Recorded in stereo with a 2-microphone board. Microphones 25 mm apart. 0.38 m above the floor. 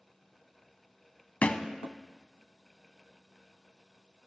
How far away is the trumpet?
No trumpet in this recording.